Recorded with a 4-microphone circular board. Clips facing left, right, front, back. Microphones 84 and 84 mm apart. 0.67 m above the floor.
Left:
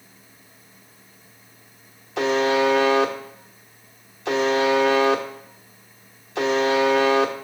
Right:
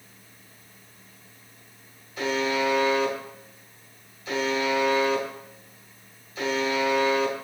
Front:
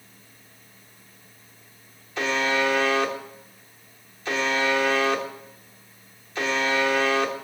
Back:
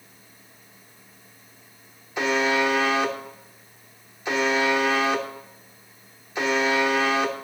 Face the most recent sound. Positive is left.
turn(degrees=105)